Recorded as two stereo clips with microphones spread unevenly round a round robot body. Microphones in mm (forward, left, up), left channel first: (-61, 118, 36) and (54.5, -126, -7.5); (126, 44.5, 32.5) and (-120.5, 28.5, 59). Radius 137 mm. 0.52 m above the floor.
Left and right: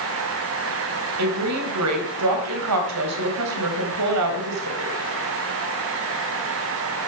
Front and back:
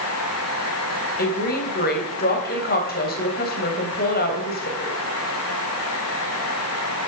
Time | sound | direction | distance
1.2 | a woman speaking | 50° right | 3 m